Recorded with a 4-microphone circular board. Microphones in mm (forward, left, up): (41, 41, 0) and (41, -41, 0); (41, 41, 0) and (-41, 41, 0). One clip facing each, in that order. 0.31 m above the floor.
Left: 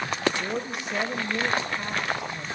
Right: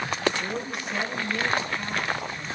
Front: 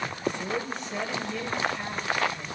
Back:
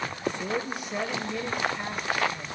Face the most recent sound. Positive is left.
turn(degrees=120)